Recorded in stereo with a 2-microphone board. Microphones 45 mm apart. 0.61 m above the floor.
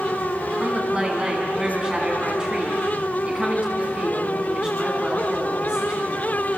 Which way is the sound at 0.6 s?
20° right (ahead or behind).